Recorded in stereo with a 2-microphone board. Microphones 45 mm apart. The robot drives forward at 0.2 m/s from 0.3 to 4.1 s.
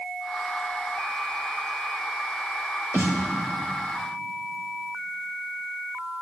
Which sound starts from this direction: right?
A snare drum, at 2.9 s.